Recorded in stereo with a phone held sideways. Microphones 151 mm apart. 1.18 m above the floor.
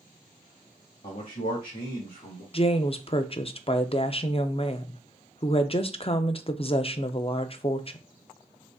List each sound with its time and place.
1.0 s a man speaking: 65° left (ahead or behind), 1.6 m; by 2.4 s 85° left, 2 m
2.5 s a woman speaking: 40° left (ahead or behind), 0.5 m